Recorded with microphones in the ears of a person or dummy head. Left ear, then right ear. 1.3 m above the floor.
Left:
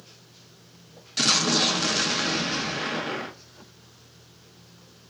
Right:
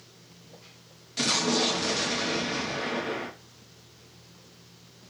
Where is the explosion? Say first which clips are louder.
Left 4 dB; 20° left (ahead or behind), 0.5 m.